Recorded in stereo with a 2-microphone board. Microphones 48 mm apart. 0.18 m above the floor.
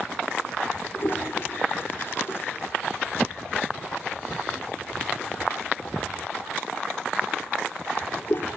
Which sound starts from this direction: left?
A toilet flushing, at 0.9 s.